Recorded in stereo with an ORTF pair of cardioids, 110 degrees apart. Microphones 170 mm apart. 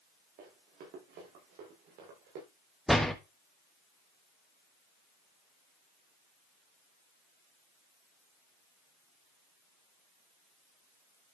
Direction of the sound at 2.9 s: Straight ahead.